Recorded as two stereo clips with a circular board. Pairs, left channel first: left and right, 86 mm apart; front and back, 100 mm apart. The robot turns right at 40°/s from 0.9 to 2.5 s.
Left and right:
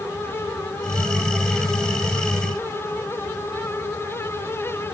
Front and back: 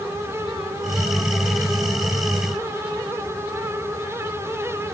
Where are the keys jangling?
I don't hear keys jangling.